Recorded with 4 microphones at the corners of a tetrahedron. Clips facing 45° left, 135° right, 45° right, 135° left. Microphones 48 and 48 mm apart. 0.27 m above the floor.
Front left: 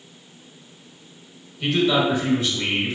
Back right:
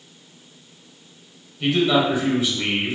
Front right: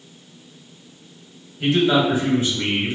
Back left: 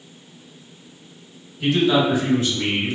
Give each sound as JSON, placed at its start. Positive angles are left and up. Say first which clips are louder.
{"t": 1.6, "sound": "a man speaking", "louder": "back right 1 dB, even", "azimuth_deg": -65, "distance_m": 1.1}